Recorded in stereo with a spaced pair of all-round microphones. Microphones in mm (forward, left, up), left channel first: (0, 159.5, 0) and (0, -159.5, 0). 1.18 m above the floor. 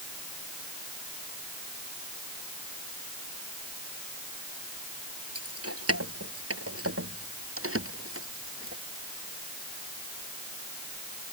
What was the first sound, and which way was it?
Keys jangling, 45° right (ahead or behind).